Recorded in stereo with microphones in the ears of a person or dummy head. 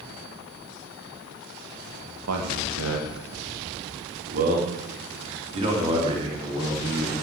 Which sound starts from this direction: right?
A man speaking, at 2.3 s.